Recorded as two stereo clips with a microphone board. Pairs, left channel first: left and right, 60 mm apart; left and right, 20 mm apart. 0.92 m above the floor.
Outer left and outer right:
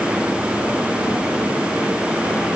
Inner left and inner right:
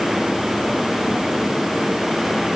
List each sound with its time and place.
Only background noise.